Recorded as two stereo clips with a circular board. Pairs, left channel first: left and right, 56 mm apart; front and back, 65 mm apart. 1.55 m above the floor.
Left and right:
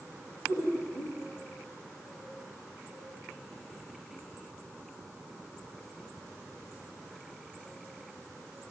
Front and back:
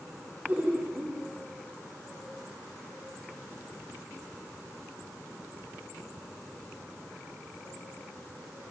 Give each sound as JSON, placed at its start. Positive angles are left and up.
{"t": 0.5, "sound": "laughter", "azimuth_deg": 120, "distance_m": 3.0}